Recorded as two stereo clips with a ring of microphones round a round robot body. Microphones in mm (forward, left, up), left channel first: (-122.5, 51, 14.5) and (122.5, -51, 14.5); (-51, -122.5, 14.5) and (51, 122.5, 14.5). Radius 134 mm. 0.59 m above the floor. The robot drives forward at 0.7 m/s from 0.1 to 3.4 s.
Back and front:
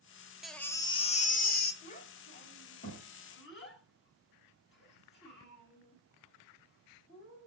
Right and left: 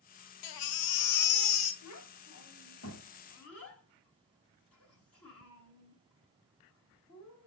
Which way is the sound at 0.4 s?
110° right.